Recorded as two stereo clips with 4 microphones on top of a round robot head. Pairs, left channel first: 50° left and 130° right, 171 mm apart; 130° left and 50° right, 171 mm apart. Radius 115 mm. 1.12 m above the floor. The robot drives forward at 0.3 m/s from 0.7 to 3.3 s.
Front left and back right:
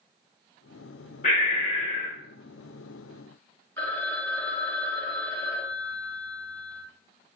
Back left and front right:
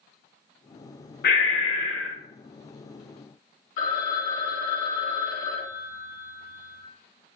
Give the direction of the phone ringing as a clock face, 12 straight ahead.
8 o'clock.